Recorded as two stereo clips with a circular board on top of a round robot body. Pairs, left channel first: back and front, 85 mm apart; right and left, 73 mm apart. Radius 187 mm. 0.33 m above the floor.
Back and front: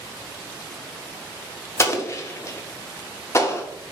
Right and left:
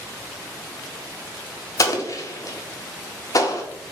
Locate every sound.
1.8 s an explosion: 125° right, 0.7 m